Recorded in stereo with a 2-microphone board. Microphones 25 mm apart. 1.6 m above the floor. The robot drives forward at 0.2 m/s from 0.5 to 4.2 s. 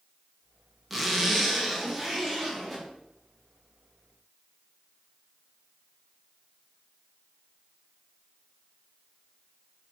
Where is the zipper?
Centre (ahead or behind), 1.1 m.